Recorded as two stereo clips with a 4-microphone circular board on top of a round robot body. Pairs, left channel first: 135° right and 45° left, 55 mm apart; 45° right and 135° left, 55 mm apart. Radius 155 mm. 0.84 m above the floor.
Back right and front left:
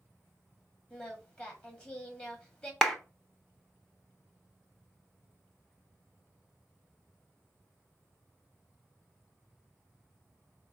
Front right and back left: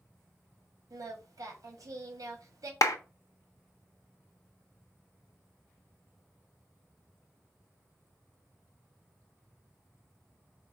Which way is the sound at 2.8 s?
50° right.